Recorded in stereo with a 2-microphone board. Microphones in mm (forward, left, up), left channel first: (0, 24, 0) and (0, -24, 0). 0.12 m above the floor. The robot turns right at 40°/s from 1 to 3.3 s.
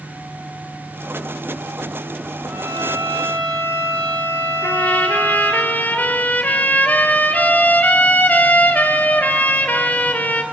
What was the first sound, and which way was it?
A violin, 125° right.